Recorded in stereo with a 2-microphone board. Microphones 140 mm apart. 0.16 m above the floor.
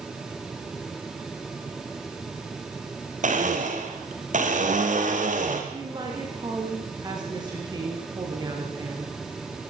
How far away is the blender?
About 4 m.